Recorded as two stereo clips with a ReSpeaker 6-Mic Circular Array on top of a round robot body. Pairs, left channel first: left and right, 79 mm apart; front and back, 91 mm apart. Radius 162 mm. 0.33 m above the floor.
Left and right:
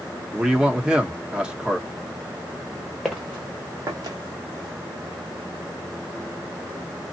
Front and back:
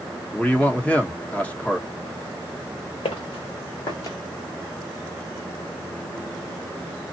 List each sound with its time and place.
0.3 s a man speaking: 40° right, 1.5 m
3.0 s footsteps: straight ahead, 1.7 m; by 4.2 s 60° right, 1.1 m